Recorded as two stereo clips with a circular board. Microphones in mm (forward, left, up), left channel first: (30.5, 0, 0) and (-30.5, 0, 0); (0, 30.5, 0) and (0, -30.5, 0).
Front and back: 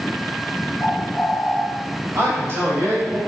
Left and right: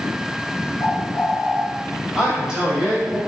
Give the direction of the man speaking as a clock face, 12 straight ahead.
6 o'clock.